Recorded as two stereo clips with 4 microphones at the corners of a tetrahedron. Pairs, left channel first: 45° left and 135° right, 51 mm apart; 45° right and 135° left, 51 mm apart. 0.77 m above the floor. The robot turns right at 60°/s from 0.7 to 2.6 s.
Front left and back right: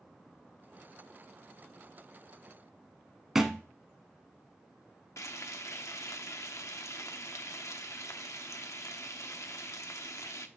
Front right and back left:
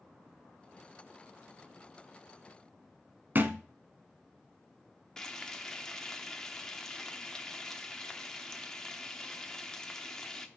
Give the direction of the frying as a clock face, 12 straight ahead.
11 o'clock.